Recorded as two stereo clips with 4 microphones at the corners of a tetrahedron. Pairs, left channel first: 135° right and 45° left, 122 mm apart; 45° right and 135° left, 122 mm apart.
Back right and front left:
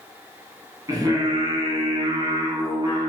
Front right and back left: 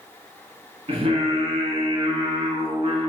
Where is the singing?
100° left, 0.8 m.